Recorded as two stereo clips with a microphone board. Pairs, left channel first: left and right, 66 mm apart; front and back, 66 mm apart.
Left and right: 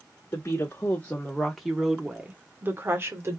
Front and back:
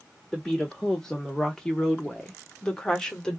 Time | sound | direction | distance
0.3 | a woman speaking | 80° left | 1.2 m